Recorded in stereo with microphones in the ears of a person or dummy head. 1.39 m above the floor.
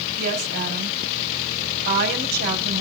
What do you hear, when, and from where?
0.2 s a woman speaking: 60° right (ahead or behind), 5.5 m